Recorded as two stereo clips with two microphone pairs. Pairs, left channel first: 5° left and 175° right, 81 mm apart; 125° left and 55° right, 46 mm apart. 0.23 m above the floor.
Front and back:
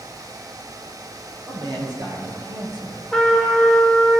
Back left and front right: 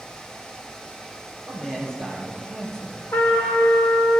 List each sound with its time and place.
1.5 s a man speaking: 155° right, 5.5 m
3.1 s a trumpet: 95° left, 5.5 m